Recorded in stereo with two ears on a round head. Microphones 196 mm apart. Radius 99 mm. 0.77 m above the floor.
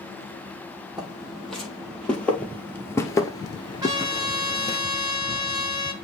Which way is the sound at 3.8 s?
20° right (ahead or behind).